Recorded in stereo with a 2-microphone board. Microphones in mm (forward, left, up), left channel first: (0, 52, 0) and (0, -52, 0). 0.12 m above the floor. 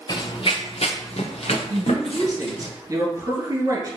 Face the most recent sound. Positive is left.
turn(degrees=-35)  # may be behind; listen again after turning